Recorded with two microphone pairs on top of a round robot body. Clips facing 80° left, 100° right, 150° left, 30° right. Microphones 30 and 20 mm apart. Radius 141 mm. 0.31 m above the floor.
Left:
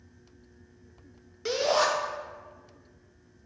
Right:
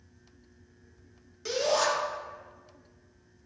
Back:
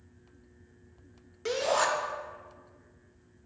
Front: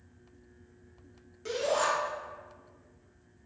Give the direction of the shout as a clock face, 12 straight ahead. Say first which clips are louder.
Left 2 dB, back 2 dB; 8 o'clock.